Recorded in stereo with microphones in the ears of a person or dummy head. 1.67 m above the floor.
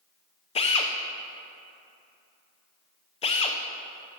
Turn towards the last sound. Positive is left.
turn(degrees=30)  # may be behind; listen again after turning